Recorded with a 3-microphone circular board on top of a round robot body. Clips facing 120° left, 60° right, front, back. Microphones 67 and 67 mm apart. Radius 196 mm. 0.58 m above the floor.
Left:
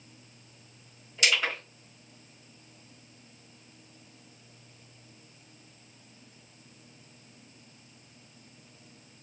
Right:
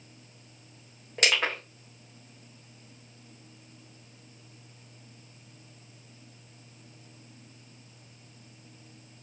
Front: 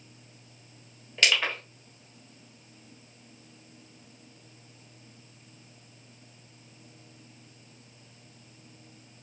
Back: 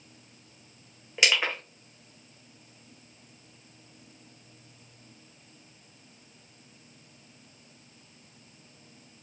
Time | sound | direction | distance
1.2 | crushing | 105° right | 0.6 m